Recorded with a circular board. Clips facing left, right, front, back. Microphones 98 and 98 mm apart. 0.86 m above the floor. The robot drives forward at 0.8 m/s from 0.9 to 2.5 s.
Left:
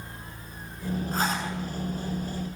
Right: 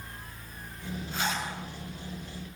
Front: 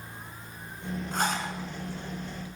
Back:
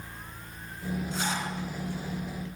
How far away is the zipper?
About 7.5 m.